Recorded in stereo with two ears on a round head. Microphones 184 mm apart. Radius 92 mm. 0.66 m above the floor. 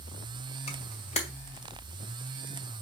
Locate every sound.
0.7 s a camera shutter: 30° left (ahead or behind), 2 m